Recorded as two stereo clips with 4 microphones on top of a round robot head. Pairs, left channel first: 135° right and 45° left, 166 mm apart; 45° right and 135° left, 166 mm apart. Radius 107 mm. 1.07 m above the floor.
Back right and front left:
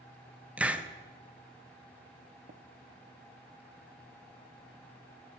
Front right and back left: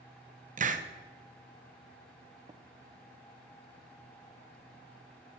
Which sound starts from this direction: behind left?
A hiss, at 0.6 s.